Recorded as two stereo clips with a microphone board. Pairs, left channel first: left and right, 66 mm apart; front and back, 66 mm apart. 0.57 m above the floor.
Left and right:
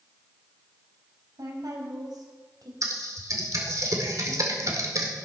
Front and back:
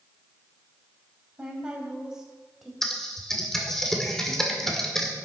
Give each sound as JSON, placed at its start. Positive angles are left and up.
{"t": 1.4, "sound": "a woman speaking", "azimuth_deg": -105, "distance_m": 3.5}
{"t": 2.8, "sound": "typing on a keyboard", "azimuth_deg": -80, "distance_m": 1.9}